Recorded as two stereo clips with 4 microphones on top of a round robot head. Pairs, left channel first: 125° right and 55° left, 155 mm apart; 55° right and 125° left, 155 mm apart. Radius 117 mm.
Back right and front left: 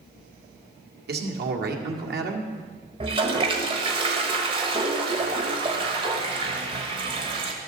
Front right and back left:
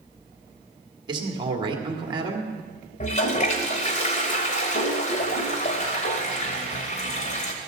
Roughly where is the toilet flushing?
Ahead.